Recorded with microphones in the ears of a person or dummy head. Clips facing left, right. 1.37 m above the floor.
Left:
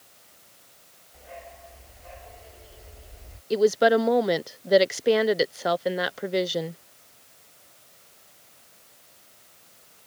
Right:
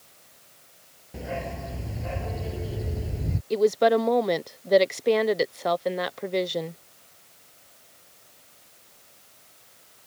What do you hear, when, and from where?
1.1 s a dog barking: 85° right; by 3.4 s 80° right
3.5 s a woman speaking: 5° left (ahead or behind)